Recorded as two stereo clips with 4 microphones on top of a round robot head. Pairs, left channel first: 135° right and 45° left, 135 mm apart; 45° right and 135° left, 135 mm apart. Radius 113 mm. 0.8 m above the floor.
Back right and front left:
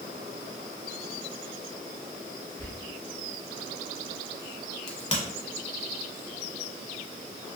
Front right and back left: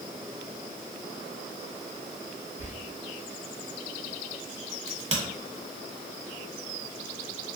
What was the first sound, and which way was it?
Whispering, 70° right.